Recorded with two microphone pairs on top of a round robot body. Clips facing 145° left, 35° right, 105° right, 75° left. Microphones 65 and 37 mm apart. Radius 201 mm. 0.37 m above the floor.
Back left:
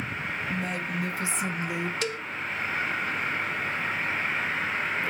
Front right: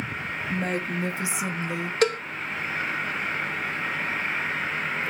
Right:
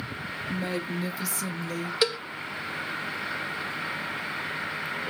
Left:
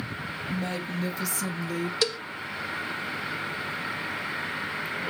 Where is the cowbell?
30° right, 0.7 m.